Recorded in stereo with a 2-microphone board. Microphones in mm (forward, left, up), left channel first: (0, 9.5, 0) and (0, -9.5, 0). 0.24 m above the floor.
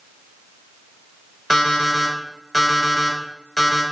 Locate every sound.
1.5 s an alarm clock: centre (ahead or behind), 0.8 m